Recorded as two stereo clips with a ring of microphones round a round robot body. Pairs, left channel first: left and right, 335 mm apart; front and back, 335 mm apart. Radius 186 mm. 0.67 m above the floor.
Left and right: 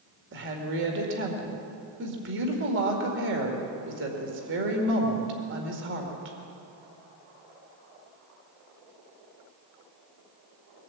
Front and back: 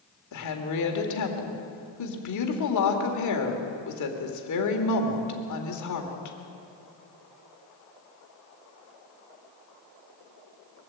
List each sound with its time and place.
0.3 s a woman speaking: 35° right, 2 m